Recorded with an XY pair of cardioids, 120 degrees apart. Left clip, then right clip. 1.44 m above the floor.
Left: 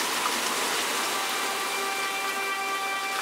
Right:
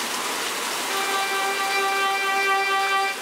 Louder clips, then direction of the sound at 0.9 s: Right 4 dB; 55° right.